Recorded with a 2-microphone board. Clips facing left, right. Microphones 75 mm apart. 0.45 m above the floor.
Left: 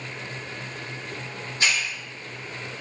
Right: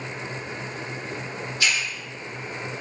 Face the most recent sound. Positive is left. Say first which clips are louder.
# left 1 dB
turn(degrees=35)  # may be behind; listen again after turning